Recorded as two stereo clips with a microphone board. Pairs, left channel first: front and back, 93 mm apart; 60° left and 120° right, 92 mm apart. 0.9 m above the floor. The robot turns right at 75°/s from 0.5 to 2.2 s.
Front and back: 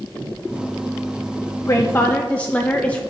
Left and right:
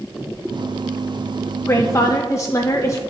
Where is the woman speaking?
20° left, 0.6 m; by 3.0 s 60° left, 0.6 m.